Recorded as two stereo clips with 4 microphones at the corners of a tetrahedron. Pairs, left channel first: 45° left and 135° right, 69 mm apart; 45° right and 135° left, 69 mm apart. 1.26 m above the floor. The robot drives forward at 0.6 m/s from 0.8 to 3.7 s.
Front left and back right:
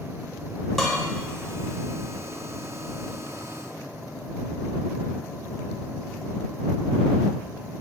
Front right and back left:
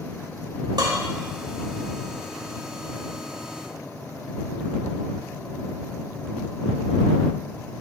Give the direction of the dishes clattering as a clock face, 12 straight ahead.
8 o'clock.